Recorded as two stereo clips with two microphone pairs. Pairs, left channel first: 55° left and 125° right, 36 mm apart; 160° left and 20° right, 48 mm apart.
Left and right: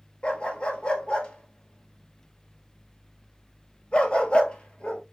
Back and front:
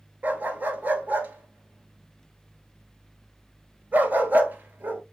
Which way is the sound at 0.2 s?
10° left.